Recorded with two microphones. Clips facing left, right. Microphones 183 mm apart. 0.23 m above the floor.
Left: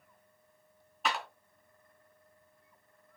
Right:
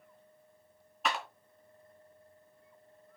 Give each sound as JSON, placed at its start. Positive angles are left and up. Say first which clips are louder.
{"t": 1.1, "sound": "a clap", "louder": "even", "side_deg": 0, "distance_m": 2.5}